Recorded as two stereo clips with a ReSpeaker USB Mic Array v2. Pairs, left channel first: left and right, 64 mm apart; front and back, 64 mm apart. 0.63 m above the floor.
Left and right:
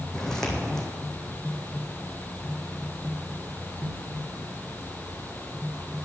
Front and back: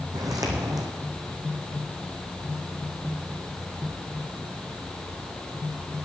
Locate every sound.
0.1 s footsteps: 170° left, 2.5 m